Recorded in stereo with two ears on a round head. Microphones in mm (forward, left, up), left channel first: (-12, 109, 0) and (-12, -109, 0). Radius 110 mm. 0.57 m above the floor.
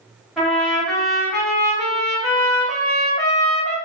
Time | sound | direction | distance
0.4 | a trumpet | centre (ahead or behind) | 1.1 m